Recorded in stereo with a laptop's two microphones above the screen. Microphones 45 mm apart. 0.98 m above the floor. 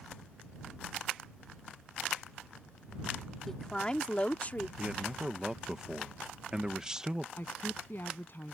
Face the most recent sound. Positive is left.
turn(degrees=50)  # may be behind; listen again after turning